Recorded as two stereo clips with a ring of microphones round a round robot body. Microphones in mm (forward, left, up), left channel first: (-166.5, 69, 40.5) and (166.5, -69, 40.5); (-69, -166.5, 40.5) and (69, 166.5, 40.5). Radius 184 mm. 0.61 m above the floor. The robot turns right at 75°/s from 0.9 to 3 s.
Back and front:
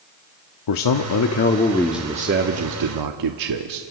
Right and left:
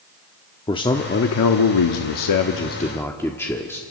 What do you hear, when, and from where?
0.7 s a man speaking: 170° left, 1.0 m; by 3.8 s 30° right, 1.0 m